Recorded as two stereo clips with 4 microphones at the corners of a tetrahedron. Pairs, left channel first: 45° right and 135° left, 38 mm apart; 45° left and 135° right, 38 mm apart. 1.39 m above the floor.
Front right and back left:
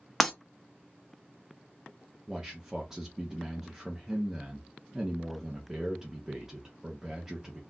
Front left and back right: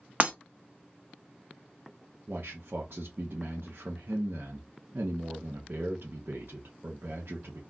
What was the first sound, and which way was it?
Breaking glass, 130° right.